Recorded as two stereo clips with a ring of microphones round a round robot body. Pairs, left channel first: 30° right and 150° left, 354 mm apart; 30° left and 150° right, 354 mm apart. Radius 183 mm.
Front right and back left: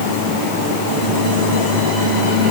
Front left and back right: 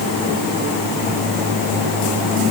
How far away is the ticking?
I don't hear ticking.